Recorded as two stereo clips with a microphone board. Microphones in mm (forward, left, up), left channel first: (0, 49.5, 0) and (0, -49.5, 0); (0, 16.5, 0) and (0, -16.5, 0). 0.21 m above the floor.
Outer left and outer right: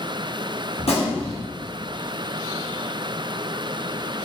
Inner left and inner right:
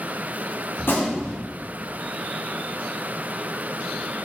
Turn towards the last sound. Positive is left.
turn(degrees=80)